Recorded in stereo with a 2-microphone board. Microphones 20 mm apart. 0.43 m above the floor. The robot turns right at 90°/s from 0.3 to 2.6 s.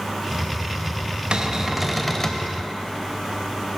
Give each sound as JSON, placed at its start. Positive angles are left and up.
{"t": 1.3, "sound": "a cupboard door", "azimuth_deg": -60, "distance_m": 0.6}